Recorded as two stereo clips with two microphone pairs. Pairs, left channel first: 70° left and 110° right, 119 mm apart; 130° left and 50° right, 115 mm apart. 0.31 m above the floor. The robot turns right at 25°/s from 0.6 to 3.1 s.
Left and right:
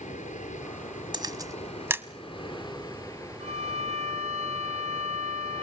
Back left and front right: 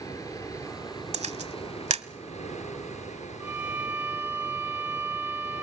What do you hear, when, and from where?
0.0 s running water: 70° left, 5.5 m; by 5.6 s 135° left, 5.5 m
1.1 s a camera shutter: 60° right, 1.0 m; by 2.0 s 35° right, 1.0 m
3.4 s a violin: 125° right, 4 m